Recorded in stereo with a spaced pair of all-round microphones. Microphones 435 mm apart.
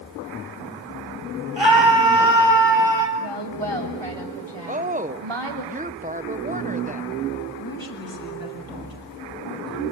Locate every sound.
1.6 s a scream: 90° left, 7 m; by 3.1 s 85° left, 8 m
3.2 s a woman speaking: 85° right, 3.5 m
4.7 s a woman speaking: 20° right (ahead or behind), 0.9 m
7.6 s a woman speaking: 55° left (ahead or behind), 7.5 m